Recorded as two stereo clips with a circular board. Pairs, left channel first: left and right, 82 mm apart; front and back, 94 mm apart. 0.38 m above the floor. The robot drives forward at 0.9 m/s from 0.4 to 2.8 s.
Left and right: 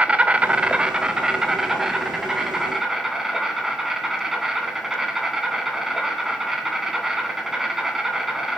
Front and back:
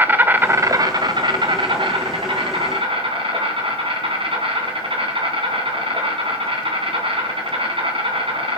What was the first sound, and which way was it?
An insect, 140° right.